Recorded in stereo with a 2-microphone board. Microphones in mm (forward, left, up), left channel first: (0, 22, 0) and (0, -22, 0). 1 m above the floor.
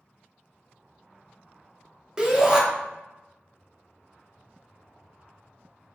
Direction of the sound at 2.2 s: 15° right (ahead or behind).